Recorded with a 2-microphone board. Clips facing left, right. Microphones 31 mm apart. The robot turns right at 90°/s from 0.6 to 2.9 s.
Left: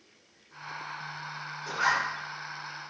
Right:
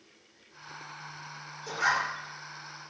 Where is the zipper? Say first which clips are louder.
Left 1 dB; 35° left, 1.5 m; by 2.1 s 75° left, 1.5 m.